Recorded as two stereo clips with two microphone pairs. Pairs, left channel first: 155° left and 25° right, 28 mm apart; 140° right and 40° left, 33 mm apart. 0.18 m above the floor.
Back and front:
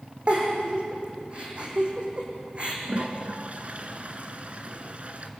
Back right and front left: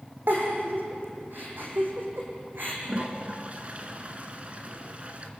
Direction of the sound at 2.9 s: Straight ahead.